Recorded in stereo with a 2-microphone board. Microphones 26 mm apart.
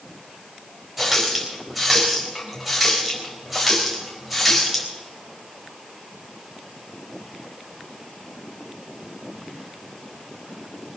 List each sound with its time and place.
1.0 s a running tap: 5° right (ahead or behind), 4 m